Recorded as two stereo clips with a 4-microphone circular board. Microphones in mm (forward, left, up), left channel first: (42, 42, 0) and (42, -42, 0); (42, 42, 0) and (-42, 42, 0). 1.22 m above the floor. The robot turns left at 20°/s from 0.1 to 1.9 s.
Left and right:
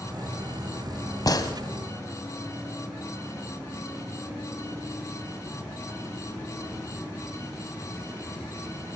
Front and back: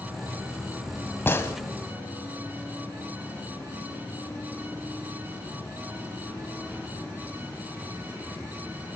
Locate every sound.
1.3 s a gunshot: 60° left, 1.9 m; by 1.5 s 55° left, 1.9 m